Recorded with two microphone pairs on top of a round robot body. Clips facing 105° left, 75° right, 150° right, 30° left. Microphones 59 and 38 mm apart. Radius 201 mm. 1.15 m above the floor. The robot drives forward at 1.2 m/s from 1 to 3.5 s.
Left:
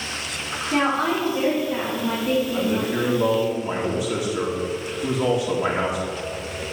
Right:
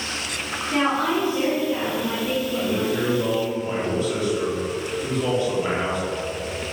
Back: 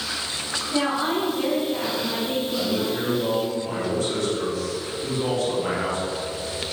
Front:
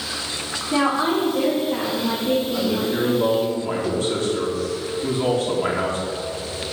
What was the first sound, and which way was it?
A woman speaking, 40° left.